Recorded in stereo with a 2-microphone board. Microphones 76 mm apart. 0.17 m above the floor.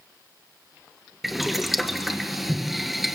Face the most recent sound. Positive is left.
turn(degrees=-5)  # may be behind; listen again after turning